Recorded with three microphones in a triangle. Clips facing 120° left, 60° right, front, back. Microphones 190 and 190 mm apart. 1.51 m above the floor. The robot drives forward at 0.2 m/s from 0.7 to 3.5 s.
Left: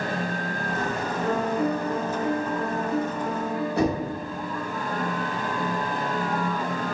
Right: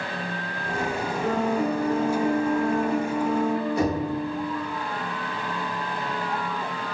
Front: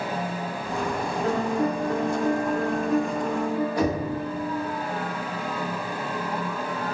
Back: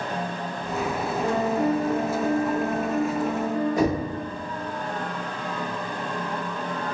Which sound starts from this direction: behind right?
A piano, at 1.2 s.